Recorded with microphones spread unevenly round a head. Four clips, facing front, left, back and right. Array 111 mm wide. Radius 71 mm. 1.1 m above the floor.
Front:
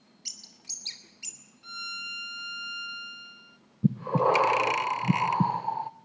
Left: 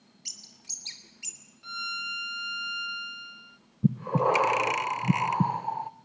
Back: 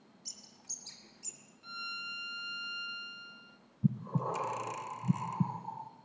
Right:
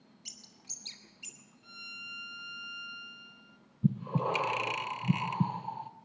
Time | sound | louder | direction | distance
0.2 | a bird | left 1 dB, front 2 dB | 40° left | 2.5 m
1.6 | a violin | left 15 dB, front 2 dB | 65° left | 0.7 m
3.8 | breathing | left 6 dB, front 10 dB | 35° left | 0.6 m